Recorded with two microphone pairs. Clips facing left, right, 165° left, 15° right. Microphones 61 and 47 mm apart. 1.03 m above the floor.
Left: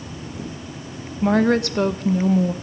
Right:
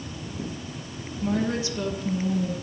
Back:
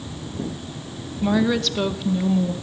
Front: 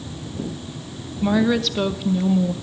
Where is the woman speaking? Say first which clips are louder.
Left 9 dB, front 1 dB; 75° left, 0.9 m.